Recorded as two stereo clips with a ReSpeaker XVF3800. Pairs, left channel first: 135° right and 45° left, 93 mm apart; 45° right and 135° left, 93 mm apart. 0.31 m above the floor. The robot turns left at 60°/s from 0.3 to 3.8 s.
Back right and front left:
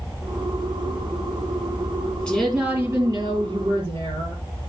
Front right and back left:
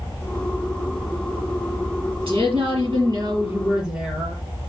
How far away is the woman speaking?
About 6 m.